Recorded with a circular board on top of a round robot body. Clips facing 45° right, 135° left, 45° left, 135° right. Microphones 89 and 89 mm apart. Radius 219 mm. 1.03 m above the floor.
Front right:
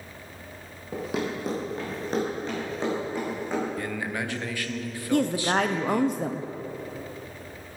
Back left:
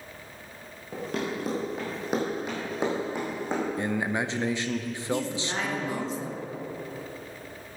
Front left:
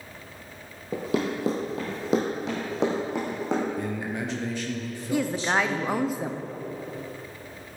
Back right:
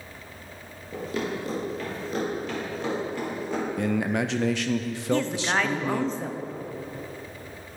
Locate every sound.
0.9 s running footsteps: 35° left, 1.6 m; by 3.7 s 65° left, 3 m
3.8 s a man speaking: 155° right, 0.7 m
5.1 s a woman speaking: 35° right, 0.7 m